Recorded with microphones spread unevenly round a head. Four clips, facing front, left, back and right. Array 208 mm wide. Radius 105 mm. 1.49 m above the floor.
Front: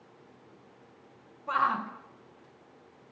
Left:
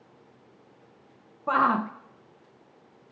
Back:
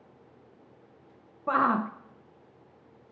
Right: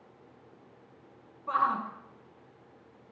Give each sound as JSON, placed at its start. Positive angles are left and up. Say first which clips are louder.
{"t": 1.5, "sound": "a shout", "louder": "left 5 dB, back 3 dB", "azimuth_deg": 135, "distance_m": 0.9}